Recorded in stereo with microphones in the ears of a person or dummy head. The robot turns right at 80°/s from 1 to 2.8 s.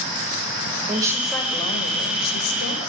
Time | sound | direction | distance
0.9 | a woman speaking | 20° right | 6.5 m